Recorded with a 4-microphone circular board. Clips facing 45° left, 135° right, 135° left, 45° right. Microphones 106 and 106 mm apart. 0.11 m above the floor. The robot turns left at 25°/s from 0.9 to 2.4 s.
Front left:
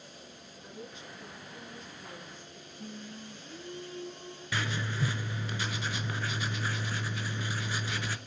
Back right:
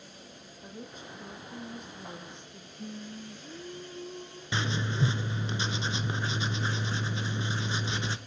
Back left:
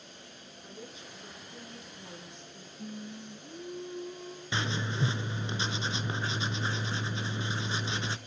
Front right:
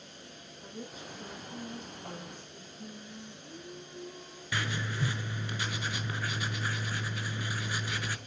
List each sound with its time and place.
0.6 s a woman speaking: 90° right, 5.5 m; by 2.7 s 125° right, 5.5 m
2.8 s singing: 170° right, 1.5 m
4.5 s writing: straight behind, 0.8 m